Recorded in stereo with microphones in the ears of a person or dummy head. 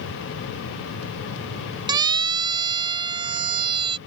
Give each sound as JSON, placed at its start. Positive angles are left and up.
{"t": 1.9, "sound": "a siren", "side_deg": -20}